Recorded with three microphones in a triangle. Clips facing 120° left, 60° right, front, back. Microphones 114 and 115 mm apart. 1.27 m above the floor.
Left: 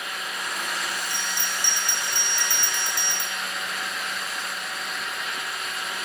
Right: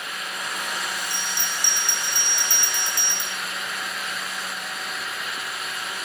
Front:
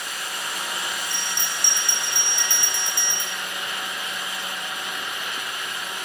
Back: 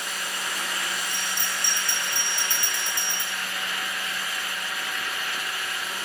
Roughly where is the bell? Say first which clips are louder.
Even, even; ahead.